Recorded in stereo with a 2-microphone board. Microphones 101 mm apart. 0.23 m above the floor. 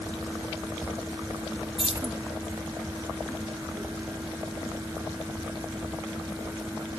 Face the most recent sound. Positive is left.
turn(degrees=-55)  # may be behind; listen again after turning